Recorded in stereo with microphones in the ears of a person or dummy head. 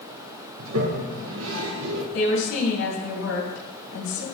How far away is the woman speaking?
About 3 m.